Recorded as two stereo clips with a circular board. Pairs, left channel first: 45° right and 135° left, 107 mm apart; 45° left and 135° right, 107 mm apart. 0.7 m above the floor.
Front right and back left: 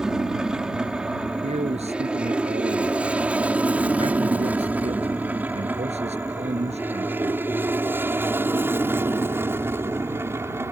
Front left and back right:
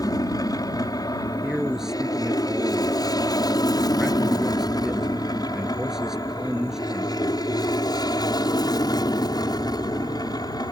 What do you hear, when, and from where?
0.0 s an aircraft: 55° left; by 10.7 s 75° left
1.4 s a man speaking: 140° left